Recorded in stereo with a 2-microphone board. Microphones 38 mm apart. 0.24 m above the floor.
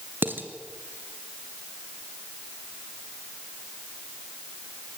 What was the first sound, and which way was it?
Dishes clattering, 70° right (ahead or behind).